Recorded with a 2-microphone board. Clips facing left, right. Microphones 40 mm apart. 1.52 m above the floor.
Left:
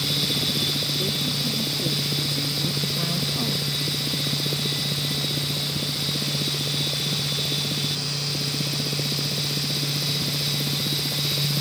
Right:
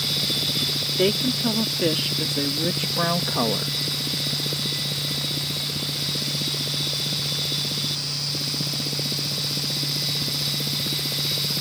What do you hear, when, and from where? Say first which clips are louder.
1.0 s a woman speaking: right 5 dB; 75° right (ahead or behind); by 3.7 s 45° right (ahead or behind)